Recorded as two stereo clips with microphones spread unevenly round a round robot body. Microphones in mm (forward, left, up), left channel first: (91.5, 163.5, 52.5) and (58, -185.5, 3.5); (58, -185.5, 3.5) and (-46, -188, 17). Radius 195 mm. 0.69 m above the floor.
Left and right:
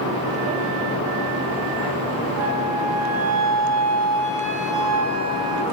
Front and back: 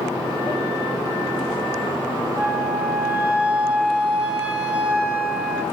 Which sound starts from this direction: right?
A flute, at 2.4 s.